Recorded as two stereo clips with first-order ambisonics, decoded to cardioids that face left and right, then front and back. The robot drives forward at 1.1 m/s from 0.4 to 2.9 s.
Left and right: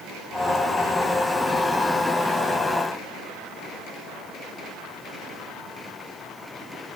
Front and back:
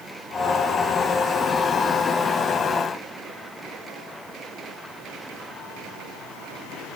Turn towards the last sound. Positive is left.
No sound to turn to.